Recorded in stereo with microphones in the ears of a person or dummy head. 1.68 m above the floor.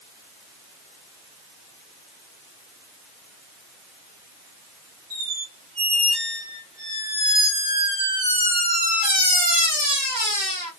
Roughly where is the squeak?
Right.